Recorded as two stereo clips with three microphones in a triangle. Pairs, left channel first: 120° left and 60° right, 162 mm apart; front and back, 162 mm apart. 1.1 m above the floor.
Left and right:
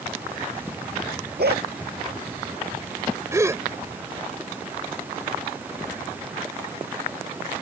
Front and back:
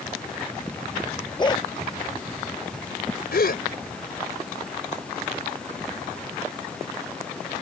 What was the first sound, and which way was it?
A dog barking, 60° right.